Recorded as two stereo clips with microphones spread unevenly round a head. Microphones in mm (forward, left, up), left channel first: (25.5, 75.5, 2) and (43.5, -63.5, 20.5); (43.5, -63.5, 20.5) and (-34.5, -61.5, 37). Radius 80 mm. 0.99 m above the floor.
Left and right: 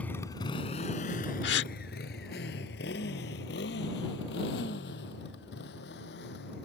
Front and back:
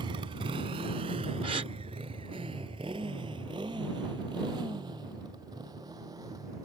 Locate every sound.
0.0 s a motorcycle: straight behind; by 6.7 s 115° left
1.4 s a gasp: 125° left